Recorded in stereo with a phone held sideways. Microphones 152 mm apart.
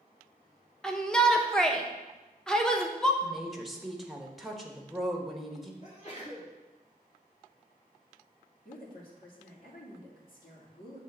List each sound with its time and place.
0.8 s a shout: 5° left (ahead or behind), 0.9 m
3.2 s a woman speaking: centre (ahead or behind), 1.2 m
5.8 s a sneeze: 50° left (ahead or behind), 3 m
8.7 s a woman speaking: 70° left (ahead or behind), 1.9 m